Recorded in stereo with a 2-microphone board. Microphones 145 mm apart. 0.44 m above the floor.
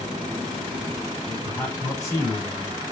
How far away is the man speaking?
About 3 m.